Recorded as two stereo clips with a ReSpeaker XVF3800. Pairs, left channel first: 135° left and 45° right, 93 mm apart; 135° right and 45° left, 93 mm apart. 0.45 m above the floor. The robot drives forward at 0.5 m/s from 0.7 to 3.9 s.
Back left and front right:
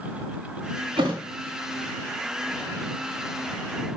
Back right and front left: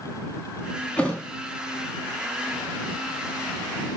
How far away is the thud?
About 1.6 m.